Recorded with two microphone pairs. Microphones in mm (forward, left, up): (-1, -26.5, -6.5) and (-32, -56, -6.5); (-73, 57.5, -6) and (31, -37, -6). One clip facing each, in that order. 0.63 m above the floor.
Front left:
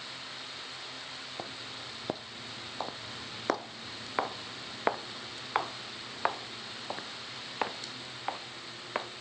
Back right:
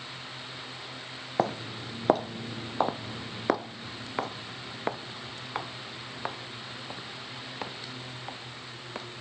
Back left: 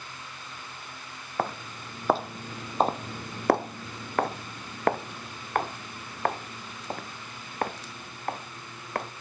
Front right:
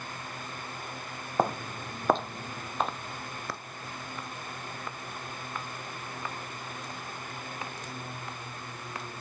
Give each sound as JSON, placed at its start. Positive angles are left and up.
{"t": 1.4, "sound": "footsteps", "azimuth_deg": -120}